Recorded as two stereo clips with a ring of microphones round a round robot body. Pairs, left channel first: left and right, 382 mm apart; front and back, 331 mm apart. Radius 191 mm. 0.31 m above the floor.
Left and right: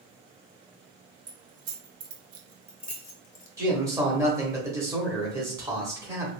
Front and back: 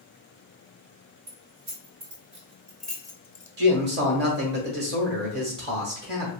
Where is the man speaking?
165° right, 1.0 m.